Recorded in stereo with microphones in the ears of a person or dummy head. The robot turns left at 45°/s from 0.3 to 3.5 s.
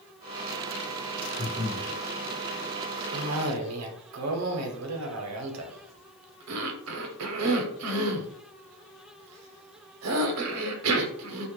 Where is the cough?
70° right (ahead or behind), 0.6 m; by 11.5 s 85° right, 0.6 m.